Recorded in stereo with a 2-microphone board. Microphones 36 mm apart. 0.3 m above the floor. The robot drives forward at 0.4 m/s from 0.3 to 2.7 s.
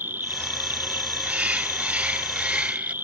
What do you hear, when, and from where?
0.0 s an insect: 70° right (ahead or behind); by 3.0 s 75° right (ahead or behind)
1.2 s a bird: 40° right (ahead or behind); by 2.9 s 35° right (ahead or behind)